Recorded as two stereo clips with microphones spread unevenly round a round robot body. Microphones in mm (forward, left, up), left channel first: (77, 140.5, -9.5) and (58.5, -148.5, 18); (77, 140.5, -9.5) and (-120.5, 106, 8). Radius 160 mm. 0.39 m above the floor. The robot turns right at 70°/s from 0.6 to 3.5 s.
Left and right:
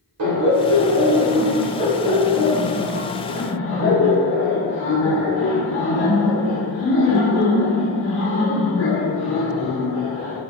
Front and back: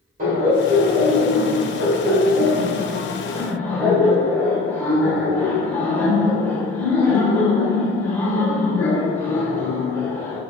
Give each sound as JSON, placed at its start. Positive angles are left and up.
{"t": 0.2, "sound": "laughter", "azimuth_deg": -115, "distance_m": 1.2}